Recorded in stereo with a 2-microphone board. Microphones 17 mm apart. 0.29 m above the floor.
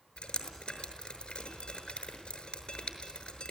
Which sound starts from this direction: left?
Dripping, at 0.2 s.